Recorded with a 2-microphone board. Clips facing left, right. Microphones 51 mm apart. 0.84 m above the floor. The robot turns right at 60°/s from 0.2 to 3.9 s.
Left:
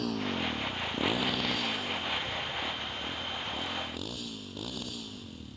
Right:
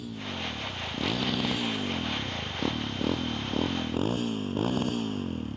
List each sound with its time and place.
0.0 s a motorcycle: 70° left (ahead or behind); by 5.6 s 45° right (ahead or behind)